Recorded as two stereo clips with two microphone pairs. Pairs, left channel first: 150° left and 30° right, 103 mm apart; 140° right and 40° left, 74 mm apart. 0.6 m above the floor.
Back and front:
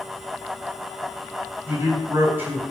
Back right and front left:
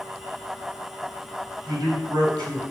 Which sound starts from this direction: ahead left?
A man speaking, at 1.7 s.